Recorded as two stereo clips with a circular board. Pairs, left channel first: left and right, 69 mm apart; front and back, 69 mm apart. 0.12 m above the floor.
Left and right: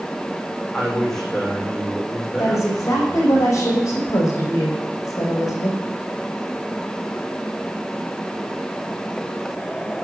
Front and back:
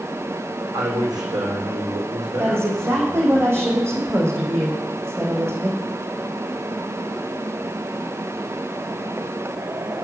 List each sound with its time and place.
0.7 s a man speaking: 175° left, 5 m
2.4 s a woman speaking: 130° left, 5.5 m